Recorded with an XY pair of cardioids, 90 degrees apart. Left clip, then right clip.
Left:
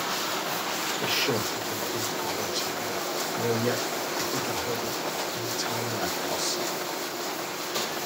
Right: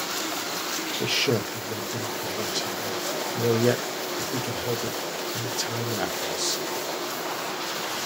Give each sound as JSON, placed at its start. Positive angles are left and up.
{"t": 1.0, "sound": "a man speaking", "azimuth_deg": -50, "distance_m": 1.6}